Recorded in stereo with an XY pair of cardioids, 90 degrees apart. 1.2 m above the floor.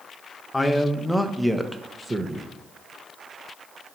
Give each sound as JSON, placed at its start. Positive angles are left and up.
{"t": 0.5, "sound": "a man speaking", "azimuth_deg": 20, "distance_m": 1.3}